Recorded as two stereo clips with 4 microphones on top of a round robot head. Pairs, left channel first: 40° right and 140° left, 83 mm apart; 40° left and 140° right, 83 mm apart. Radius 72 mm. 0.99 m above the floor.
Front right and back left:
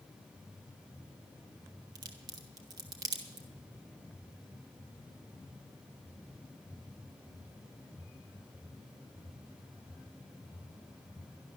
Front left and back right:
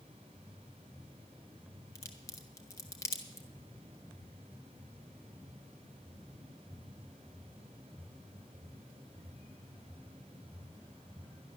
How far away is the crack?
About 0.9 m.